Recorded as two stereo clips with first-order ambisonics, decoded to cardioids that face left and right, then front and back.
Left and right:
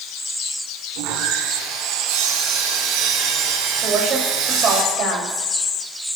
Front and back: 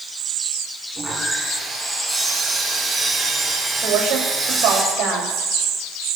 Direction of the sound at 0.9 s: 100° right.